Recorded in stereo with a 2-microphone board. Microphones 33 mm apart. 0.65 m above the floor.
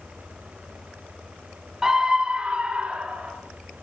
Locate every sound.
1.8 s a scream: 15° right (ahead or behind), 0.7 m; by 3.3 s 35° right (ahead or behind), 2.5 m